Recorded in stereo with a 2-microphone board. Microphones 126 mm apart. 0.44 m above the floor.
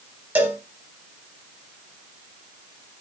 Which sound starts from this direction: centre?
A cowbell, at 0.3 s.